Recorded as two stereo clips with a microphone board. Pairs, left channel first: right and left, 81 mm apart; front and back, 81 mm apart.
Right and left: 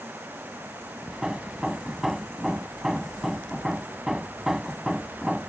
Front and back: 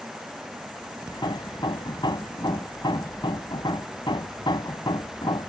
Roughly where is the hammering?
Ahead.